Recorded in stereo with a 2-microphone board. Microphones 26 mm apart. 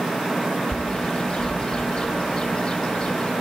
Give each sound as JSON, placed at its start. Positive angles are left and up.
{"t": 0.7, "sound": "a bird", "side_deg": 40, "distance_m": 2.5}